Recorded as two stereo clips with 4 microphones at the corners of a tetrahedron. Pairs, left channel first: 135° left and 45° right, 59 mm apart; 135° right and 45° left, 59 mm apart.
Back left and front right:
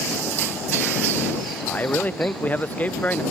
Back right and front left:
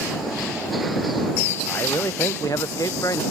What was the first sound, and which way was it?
A man speaking, 165° right.